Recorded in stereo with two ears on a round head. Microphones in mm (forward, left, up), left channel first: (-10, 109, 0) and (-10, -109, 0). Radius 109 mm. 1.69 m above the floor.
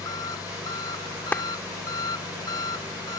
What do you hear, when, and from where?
0.0 s an engine running: 15° left (ahead or behind)
1.3 s a clap: 5° left (ahead or behind)